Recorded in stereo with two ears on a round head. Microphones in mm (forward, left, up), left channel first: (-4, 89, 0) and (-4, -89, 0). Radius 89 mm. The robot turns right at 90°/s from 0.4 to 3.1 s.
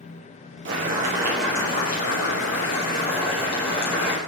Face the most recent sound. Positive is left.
turn(degrees=150)